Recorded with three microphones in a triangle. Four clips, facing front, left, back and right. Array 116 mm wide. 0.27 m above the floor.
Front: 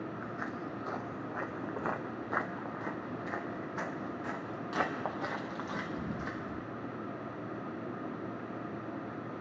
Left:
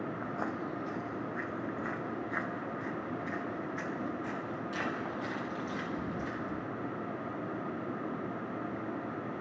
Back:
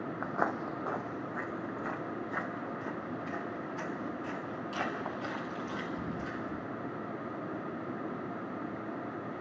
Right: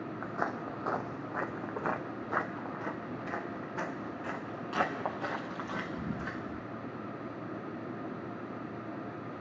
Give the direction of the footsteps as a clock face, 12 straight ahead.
6 o'clock.